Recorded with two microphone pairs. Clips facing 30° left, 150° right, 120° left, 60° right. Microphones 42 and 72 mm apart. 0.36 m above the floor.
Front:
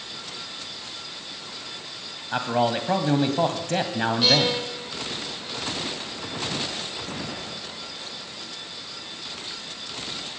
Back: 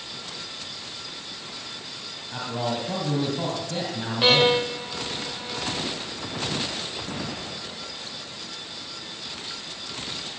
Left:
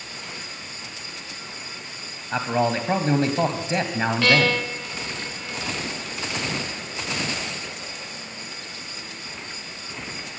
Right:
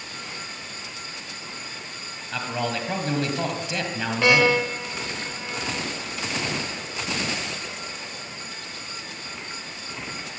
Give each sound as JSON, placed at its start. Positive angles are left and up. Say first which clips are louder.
{"t": 2.3, "sound": "a man speaking", "louder": "front 6 dB, left 6 dB", "azimuth_deg": 60, "distance_m": 1.9}
{"t": 4.2, "sound": "a violin", "louder": "back 6 dB, right 3 dB", "azimuth_deg": -120, "distance_m": 0.8}